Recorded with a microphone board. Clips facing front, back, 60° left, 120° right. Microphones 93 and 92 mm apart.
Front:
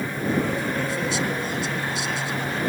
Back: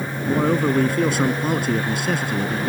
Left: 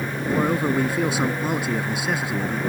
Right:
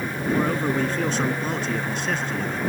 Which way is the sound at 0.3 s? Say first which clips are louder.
Back 6 dB, left 1 dB; 140° left.